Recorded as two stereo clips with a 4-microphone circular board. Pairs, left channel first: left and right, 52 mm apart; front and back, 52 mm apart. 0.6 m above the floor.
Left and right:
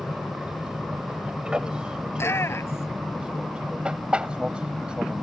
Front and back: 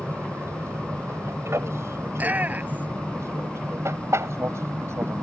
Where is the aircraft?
165° right; by 5.2 s 160° right.